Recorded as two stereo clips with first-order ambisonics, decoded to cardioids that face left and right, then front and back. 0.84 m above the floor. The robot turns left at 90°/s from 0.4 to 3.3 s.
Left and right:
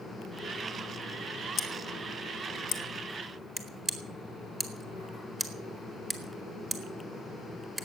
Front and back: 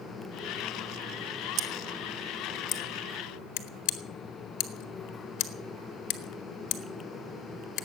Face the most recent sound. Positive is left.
turn(degrees=-10)